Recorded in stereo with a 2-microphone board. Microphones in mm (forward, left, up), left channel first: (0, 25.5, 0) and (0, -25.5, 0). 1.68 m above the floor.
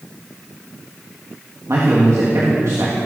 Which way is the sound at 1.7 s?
75° right (ahead or behind).